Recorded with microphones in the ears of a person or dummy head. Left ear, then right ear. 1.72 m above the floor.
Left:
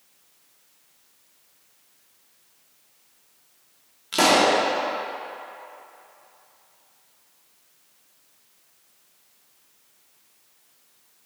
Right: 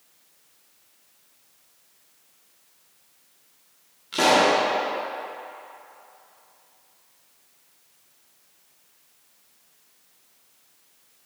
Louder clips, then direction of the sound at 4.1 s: Even; 20° left (ahead or behind).